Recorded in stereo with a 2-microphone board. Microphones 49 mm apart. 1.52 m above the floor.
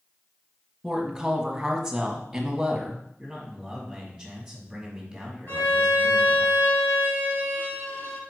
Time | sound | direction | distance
0.8 | a woman speaking | 10° right (ahead or behind) | 1.5 m
3.2 | a man speaking | 5° right (ahead or behind) | 2.5 m
5.5 | a violin | 55° left (ahead or behind) | 3 m